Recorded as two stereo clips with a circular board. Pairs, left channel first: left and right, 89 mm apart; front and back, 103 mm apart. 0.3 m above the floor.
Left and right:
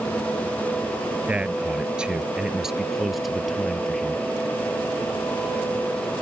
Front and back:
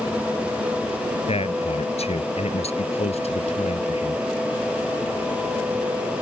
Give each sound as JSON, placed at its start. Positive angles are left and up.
{"t": 1.3, "sound": "a man speaking", "azimuth_deg": -15}